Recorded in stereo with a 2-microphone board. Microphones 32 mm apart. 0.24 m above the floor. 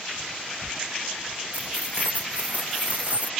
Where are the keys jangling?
50° right (ahead or behind).